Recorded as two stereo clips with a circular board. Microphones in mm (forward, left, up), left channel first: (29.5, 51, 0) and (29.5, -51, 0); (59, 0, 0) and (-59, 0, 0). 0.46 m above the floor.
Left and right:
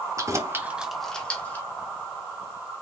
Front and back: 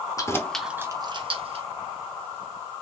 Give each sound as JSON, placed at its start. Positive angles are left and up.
{"t": 0.2, "sound": "keys jangling", "azimuth_deg": -45, "distance_m": 0.9}